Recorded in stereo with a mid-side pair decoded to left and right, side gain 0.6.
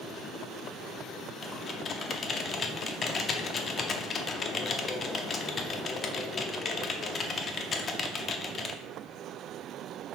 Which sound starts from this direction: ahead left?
Typing on a keyboard, at 1.4 s.